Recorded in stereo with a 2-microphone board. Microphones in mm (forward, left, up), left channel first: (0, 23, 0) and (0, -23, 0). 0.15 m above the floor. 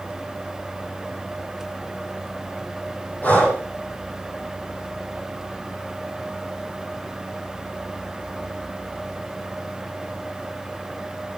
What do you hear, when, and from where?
3.2 s breathing: 35° left (ahead or behind), 5.5 m